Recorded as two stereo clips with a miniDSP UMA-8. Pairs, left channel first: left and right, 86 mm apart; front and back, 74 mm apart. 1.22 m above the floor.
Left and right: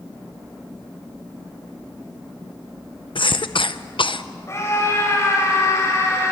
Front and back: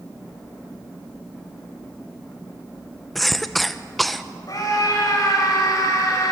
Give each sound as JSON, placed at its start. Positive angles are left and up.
{"t": 3.1, "sound": "a cough", "azimuth_deg": 90, "distance_m": 0.6}
{"t": 4.5, "sound": "a scream", "azimuth_deg": 35, "distance_m": 7.5}